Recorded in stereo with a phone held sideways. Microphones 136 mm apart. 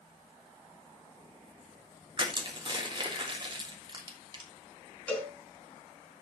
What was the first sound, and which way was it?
Crushing, 35° right (ahead or behind).